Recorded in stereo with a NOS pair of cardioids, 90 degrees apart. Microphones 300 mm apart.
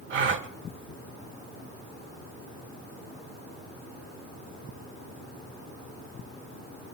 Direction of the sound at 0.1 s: 45° right.